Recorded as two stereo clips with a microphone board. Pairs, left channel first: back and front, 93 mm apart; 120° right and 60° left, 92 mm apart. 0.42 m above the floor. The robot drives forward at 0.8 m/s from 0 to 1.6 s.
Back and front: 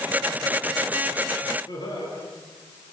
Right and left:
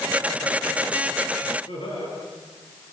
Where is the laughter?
140° right, 6.5 m.